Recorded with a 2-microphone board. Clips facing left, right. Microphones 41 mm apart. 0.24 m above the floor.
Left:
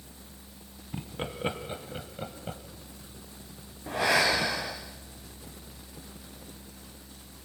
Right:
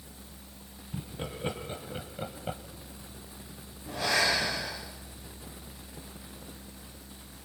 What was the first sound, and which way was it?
Laughter, 40° left (ahead or behind).